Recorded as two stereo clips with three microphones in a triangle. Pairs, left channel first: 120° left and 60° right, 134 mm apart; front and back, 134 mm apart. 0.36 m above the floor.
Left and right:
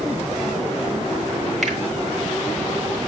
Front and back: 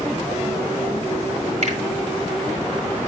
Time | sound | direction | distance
1.6 | a finger snap | 150° right | 3 m